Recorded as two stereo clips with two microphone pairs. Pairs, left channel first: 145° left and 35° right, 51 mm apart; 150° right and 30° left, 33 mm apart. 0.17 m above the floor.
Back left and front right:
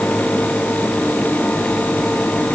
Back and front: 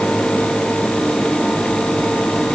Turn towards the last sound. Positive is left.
No sound to turn to.